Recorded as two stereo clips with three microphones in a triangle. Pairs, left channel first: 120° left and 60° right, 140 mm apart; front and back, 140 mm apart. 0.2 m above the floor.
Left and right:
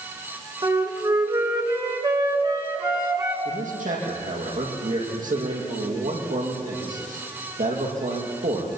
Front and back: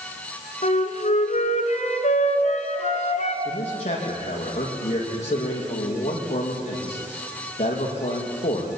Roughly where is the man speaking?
Ahead right.